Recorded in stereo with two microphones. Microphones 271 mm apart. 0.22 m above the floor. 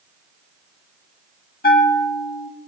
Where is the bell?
35° left (ahead or behind), 0.6 m.